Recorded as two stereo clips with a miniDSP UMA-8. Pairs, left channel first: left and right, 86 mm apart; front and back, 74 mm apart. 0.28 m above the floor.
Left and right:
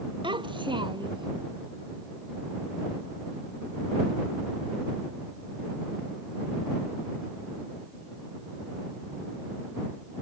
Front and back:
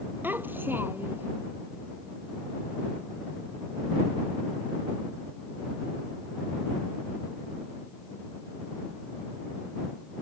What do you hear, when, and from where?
0.2 s a child speaking: 115° right